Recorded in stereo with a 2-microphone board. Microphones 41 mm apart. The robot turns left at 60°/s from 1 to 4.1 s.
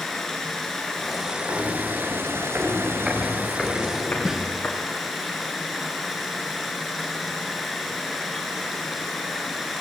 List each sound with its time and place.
0.0 s running water: 5° left, 4.5 m; by 9.8 s straight behind, 4.5 m
1.5 s footsteps: 55° right (ahead or behind), 7.5 m; by 4.8 s 40° left (ahead or behind), 9.5 m
4.2 s a snare drum: 10° right (ahead or behind), 3 m